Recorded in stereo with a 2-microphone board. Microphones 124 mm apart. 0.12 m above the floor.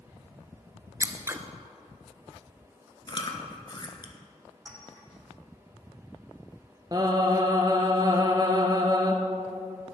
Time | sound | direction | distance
1.0 | scissors | 20° right (ahead or behind) | 0.8 m
3.1 | chewing | 40° left (ahead or behind) | 1.3 m
4.7 | a clink | 30° right (ahead or behind) | 4.5 m
6.9 | singing | 30° right (ahead or behind) | 1.3 m